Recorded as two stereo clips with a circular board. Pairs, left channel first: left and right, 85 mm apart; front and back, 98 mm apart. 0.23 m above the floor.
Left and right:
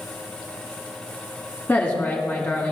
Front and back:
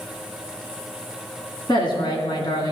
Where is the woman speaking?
30° left, 2 m.